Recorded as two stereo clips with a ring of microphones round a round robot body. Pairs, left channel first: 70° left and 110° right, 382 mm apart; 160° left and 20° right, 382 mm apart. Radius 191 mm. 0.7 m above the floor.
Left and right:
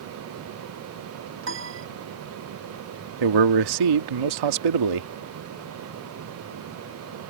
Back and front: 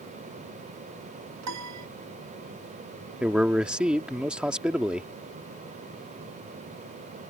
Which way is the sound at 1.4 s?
60° right.